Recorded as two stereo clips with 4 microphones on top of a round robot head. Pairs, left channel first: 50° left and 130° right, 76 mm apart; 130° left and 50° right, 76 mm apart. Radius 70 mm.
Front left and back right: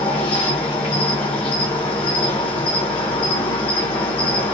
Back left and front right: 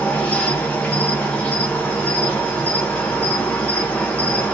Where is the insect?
55° left, 1.5 m.